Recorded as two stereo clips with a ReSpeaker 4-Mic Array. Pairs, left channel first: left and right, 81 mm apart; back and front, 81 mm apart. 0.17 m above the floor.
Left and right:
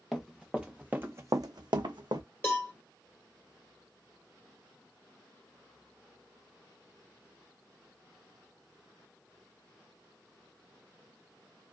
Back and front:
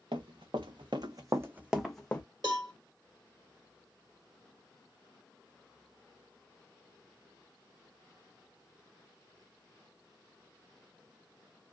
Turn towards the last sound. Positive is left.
turn(degrees=30)